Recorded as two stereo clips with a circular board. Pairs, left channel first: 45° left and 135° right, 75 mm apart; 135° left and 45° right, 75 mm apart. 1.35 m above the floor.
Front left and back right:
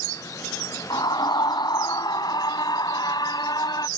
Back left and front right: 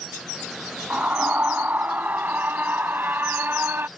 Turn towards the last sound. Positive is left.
turn(degrees=20)